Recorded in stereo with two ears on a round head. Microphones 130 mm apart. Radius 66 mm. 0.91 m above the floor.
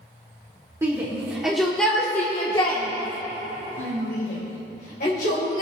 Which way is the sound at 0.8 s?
20° right (ahead or behind).